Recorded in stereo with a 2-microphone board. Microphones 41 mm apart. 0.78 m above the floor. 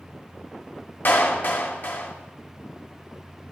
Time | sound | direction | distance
1.1 | a clap | 50° left (ahead or behind) | 1.4 m